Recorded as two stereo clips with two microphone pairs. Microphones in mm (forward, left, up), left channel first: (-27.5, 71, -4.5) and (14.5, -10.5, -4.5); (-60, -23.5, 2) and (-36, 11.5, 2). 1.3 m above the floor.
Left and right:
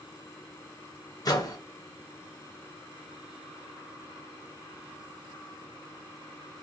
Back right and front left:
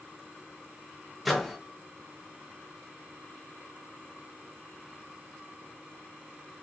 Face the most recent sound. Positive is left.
turn(degrees=150)